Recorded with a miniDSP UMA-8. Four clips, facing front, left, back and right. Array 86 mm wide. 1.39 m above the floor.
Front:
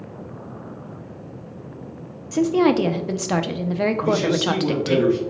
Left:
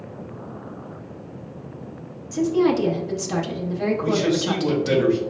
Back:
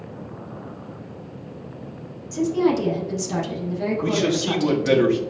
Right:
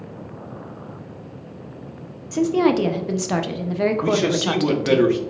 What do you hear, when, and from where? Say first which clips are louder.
2.3 s a woman speaking: right 1 dB, front 3 dB; 30° right, 0.6 m
4.0 s a man speaking: right 1 dB, front 2 dB; 125° right, 1.1 m